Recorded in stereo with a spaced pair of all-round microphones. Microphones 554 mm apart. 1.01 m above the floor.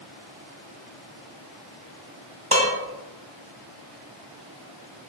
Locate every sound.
2.5 s dishes clattering: 15° right (ahead or behind), 0.8 m